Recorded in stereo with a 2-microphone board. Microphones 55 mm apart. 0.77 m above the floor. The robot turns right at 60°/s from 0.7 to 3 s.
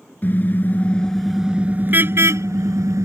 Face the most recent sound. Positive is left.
turn(degrees=-75)